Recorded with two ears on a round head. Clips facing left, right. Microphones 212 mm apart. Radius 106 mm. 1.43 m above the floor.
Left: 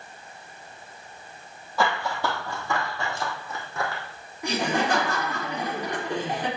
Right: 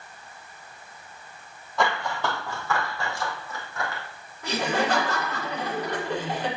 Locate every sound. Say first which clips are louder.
1.8 s running footsteps: left 1 dB; 5° left (ahead or behind), 3 m; by 4.0 s 25° left (ahead or behind), 4 m
4.4 s laughter: even; 15° left (ahead or behind), 4.5 m